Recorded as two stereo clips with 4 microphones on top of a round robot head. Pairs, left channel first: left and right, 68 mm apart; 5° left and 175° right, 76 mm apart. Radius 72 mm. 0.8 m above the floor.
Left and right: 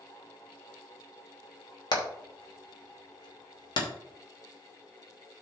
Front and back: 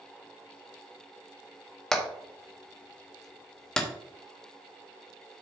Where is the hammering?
90° left, 3 m.